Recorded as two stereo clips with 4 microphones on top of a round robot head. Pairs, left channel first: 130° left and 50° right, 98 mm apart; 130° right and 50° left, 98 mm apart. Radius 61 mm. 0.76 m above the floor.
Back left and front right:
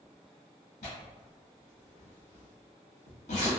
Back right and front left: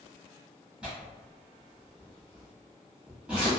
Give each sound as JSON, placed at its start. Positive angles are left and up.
{"t": 0.8, "sound": "tearing paper", "azimuth_deg": 130, "distance_m": 1.7}